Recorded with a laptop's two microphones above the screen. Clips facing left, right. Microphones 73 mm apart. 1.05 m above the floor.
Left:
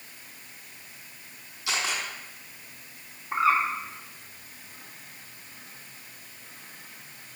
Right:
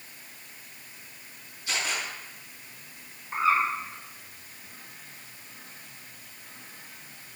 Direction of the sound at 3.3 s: 65° left (ahead or behind).